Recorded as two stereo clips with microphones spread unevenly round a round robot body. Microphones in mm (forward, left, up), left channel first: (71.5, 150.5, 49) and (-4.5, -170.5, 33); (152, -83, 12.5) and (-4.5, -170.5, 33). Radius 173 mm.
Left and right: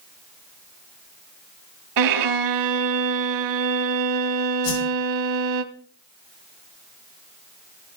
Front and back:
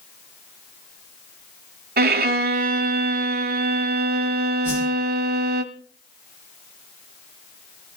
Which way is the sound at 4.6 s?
125° left.